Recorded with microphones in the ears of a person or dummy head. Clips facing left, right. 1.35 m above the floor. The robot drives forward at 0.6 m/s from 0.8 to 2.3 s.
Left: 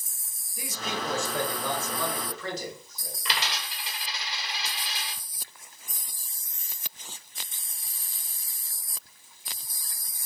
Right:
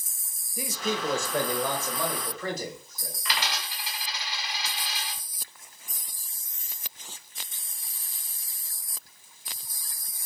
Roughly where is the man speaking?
Right.